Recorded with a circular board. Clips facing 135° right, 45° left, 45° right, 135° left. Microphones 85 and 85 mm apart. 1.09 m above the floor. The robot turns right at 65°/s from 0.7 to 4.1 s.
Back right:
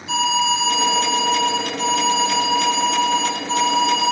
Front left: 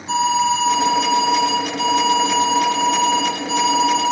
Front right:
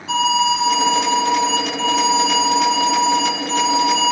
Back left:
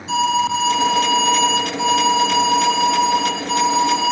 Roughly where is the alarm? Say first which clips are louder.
Front left 3 dB, even; ahead.